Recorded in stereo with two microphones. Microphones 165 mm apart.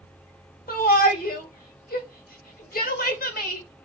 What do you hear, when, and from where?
0.7 s a shout: 60° left (ahead or behind), 1.3 m